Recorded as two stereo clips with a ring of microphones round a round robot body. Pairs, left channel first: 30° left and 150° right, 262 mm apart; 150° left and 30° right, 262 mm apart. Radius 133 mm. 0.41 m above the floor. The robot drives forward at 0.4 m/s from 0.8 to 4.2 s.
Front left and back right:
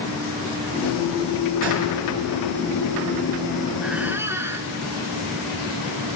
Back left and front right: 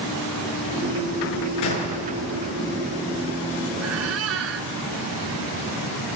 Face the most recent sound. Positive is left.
turn(degrees=-70)